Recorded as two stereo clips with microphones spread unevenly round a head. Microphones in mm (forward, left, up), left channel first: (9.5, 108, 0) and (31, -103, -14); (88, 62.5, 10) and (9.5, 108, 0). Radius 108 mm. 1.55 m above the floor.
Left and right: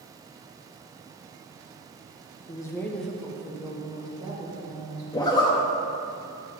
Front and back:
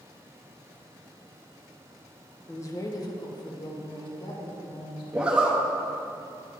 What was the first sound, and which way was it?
A woman speaking, 25° left.